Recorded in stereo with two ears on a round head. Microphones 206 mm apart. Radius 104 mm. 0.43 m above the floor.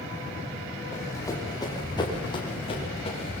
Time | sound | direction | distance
0.9 | running footsteps | 15° left (ahead or behind) | 5.5 m